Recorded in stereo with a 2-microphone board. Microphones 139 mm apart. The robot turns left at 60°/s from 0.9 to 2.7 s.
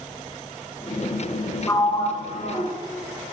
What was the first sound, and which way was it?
A sliding door, 165° left.